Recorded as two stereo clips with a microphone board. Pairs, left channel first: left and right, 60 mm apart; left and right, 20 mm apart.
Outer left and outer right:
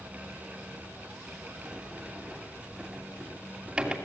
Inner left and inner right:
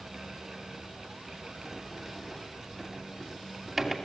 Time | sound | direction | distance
1.6 | a sliding door | 15° right (ahead or behind) | 2.5 m